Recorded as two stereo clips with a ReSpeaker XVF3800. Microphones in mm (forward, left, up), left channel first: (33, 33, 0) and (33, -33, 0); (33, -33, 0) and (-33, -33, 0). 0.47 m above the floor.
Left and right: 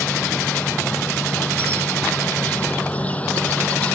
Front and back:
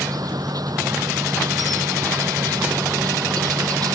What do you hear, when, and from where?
0.0 s an insect: 160° left